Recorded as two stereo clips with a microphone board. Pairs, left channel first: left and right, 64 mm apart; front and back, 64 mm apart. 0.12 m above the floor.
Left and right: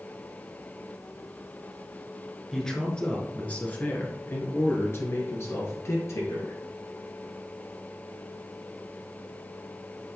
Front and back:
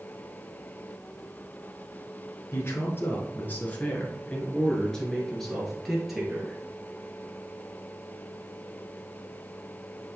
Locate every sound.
2.5 s a man speaking: 10° left, 1.7 m; by 6.6 s 100° left, 2 m